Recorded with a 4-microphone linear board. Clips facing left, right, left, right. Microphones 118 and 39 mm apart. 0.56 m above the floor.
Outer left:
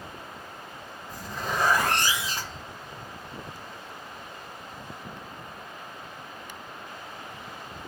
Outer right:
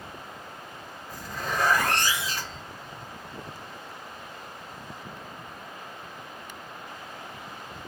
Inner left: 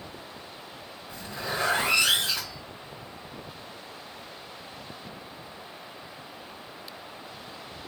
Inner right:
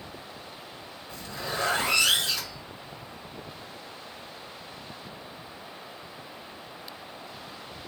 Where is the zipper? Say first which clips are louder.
Outer left 1 dB, inner left 1 dB; 20° left (ahead or behind), 1.5 m.